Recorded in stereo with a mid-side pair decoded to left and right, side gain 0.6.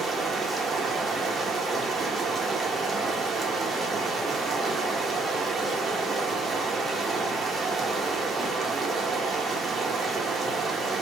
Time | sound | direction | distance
0.0 | running water | 25° right | 0.7 m